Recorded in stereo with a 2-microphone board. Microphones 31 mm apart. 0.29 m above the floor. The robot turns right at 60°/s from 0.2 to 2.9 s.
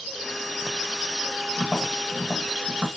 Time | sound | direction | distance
1.6 | tapping | 15° left (ahead or behind) | 1.7 m